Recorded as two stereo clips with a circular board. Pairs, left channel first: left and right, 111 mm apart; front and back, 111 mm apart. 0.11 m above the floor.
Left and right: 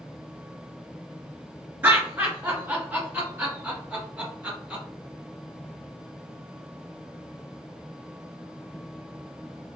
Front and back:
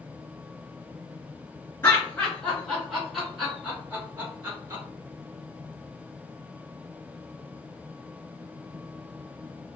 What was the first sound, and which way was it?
Laughter, 45° right.